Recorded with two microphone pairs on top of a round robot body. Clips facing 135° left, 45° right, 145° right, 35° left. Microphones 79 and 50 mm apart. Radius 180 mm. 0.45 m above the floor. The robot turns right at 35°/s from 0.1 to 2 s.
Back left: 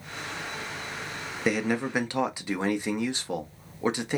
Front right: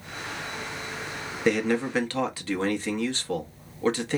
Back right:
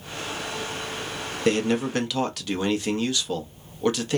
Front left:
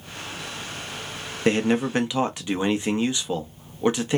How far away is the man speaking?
About 0.9 m.